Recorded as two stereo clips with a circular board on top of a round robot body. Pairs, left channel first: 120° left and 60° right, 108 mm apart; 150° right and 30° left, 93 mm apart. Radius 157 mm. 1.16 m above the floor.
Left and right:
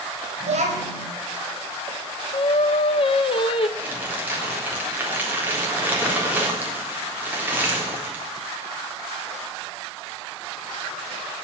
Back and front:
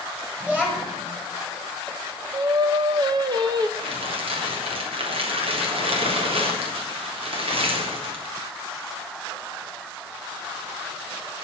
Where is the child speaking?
50° right, 5 m.